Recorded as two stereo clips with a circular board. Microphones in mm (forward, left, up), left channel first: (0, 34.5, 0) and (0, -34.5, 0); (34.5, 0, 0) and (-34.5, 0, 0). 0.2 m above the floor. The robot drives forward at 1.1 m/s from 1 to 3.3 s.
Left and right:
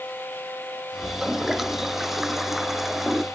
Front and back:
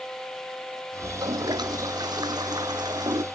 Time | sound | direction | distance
1.0 | a toilet flushing | 175° right | ?